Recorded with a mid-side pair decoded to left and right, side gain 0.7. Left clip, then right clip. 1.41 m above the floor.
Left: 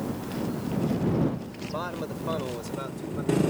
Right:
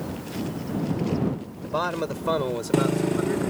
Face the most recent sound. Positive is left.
turn(degrees=-30)